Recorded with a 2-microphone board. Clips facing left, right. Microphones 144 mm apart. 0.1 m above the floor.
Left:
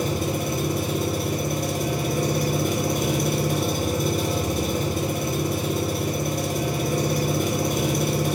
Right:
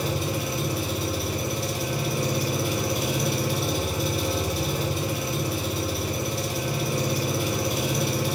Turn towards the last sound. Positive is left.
turn(degrees=45)  # may be behind; listen again after turning